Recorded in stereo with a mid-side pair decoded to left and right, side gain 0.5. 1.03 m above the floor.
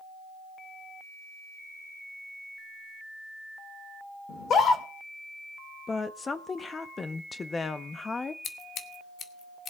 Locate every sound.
4.3 s a scream: 50° left, 2.5 m
5.9 s a woman speaking: 30° left, 1.2 m
8.4 s scissors: 55° left, 1.6 m